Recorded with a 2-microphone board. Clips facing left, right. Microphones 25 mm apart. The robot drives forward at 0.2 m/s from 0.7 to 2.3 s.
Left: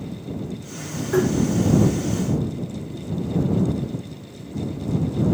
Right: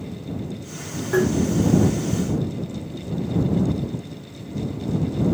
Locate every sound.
1.1 s tapping: 25° right (ahead or behind), 0.9 m